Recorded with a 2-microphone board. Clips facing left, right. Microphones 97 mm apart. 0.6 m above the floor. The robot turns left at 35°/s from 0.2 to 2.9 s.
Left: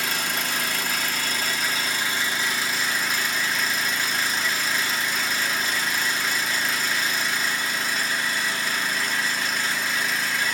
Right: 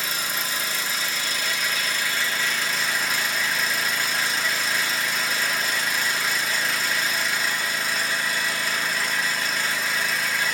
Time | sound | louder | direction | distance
0.0 | an engine running | left 2 dB | 95° left | 1.5 m